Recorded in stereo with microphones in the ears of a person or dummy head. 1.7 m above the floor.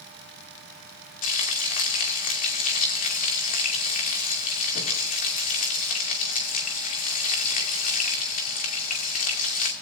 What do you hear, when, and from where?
1.2 s frying: 50° left (ahead or behind), 2.5 m